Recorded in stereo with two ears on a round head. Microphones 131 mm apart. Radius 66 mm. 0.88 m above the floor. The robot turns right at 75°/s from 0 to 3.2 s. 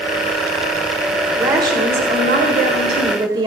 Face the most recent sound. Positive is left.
turn(degrees=-30)